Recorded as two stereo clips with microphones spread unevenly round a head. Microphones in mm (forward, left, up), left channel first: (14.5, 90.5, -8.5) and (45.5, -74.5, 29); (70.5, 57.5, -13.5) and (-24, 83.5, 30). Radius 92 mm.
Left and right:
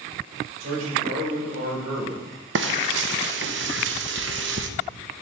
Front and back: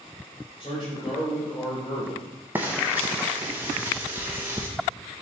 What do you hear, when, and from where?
0.6 s a man speaking: 80° right, 3.5 m
2.5 s frying: 110° right, 0.5 m